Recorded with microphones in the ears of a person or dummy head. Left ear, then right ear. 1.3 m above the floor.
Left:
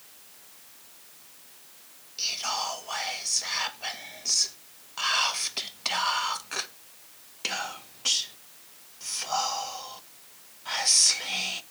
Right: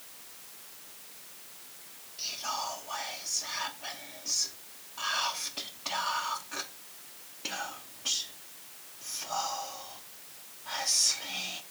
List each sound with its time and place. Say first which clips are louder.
2.2 s whispering: left 5 dB; 55° left (ahead or behind), 1.1 m